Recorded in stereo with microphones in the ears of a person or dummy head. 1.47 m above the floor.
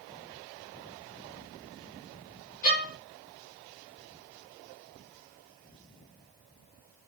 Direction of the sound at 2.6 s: 45° left (ahead or behind).